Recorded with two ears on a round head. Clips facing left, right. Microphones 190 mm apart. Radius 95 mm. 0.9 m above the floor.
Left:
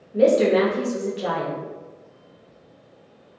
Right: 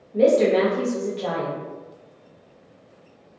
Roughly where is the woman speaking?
Centre.